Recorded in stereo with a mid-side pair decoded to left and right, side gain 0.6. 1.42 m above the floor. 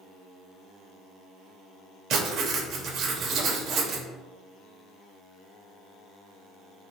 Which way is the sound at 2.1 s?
55° right.